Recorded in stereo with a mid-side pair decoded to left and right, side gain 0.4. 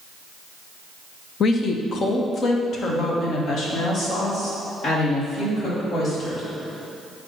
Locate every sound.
1.4 s a woman speaking: 60° left, 0.8 m; by 6.4 s 65° left, 3.5 m